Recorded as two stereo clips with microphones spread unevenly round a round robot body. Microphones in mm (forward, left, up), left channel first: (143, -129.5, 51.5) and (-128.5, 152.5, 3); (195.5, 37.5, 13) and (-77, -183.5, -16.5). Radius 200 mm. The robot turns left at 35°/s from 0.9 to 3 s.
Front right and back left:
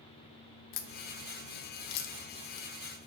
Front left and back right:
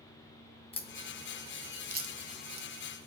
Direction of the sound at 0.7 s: 35° right.